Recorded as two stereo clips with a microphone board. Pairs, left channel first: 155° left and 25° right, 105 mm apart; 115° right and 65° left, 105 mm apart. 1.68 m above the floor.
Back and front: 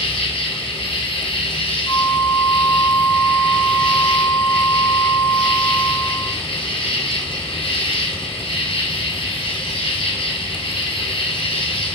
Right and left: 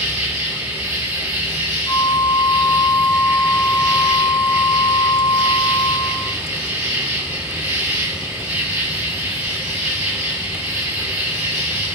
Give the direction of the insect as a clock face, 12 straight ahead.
7 o'clock.